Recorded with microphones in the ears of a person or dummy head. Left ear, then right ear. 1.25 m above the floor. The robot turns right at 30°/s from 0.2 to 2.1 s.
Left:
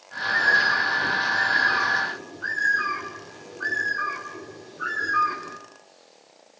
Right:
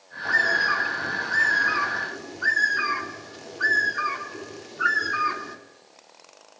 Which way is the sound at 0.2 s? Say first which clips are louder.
Left 1 dB; 125° right.